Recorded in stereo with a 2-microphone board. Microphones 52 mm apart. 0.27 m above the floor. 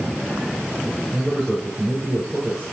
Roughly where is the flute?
I don't hear a flute.